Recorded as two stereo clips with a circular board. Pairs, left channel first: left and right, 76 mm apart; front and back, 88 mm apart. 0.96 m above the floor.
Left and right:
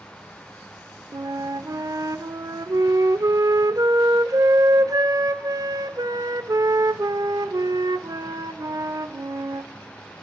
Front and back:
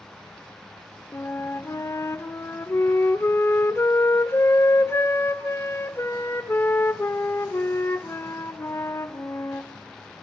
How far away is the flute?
About 1.1 m.